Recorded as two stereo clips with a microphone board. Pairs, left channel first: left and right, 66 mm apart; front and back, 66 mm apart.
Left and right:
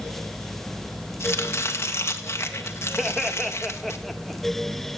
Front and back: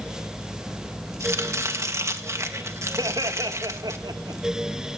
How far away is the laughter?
About 1.7 m.